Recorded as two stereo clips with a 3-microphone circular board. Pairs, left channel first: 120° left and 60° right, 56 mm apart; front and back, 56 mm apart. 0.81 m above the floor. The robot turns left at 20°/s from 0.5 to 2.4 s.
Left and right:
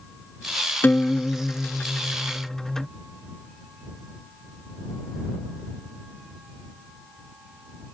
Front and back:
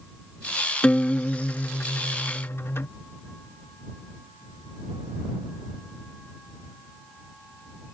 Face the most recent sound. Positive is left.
turn(degrees=35)